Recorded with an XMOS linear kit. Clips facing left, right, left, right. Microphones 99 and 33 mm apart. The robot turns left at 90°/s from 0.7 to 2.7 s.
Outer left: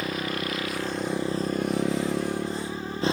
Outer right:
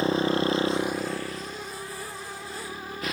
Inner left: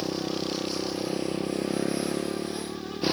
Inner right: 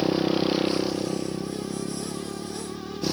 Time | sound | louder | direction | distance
0.0 | a motorcycle | outer right 6 dB, inner right 7 dB | 150° right | ?